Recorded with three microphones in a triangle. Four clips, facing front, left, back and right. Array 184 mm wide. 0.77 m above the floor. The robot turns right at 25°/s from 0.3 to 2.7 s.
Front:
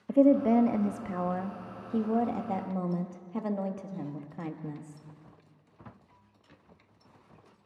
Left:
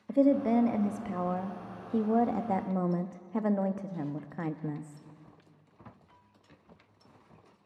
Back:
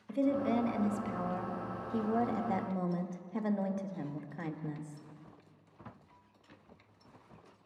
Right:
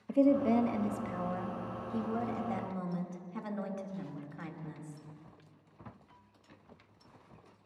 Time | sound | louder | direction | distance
0.1 | a woman speaking | left 2 dB, front 9 dB | 15° left | 0.8 m